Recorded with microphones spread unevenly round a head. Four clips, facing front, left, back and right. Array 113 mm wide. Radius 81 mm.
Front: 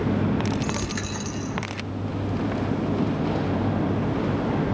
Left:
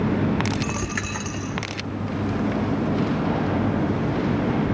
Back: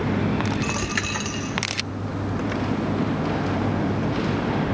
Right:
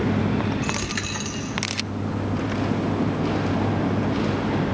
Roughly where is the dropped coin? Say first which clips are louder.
Even, back 2 dB; ahead left.